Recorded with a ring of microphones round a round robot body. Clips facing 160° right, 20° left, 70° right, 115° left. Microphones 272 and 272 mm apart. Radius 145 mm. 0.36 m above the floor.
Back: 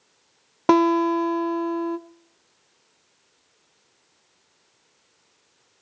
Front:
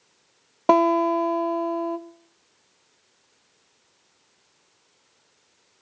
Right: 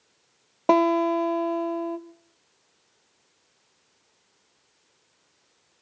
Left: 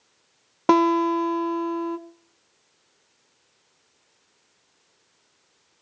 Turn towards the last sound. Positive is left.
turn(degrees=160)